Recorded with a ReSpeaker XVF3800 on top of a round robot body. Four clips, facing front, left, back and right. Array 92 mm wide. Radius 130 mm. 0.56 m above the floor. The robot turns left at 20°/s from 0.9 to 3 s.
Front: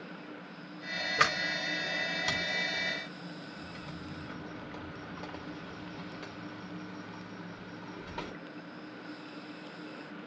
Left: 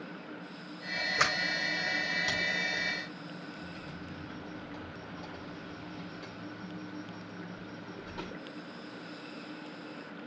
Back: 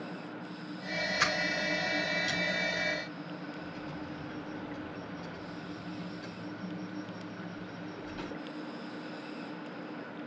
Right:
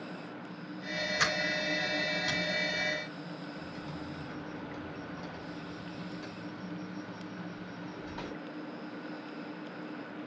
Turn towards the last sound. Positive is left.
turn(degrees=-10)